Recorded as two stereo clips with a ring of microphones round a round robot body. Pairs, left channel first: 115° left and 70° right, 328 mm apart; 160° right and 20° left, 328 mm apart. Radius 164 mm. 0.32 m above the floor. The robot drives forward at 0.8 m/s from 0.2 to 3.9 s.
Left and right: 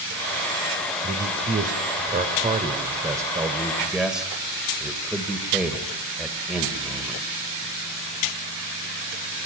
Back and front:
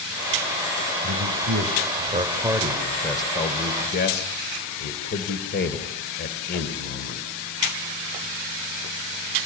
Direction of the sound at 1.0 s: 15° right.